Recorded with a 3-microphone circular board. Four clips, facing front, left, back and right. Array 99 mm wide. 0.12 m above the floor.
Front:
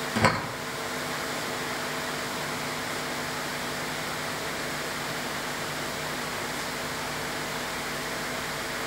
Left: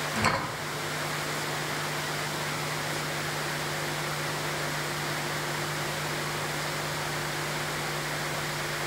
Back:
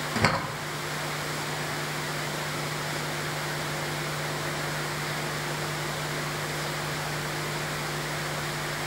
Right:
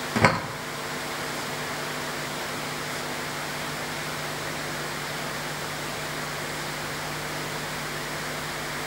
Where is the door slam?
85° right, 2 m.